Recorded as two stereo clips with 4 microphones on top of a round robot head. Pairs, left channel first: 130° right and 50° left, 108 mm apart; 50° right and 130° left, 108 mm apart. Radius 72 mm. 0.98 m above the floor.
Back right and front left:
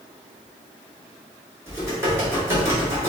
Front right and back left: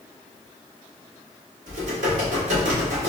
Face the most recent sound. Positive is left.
turn(degrees=120)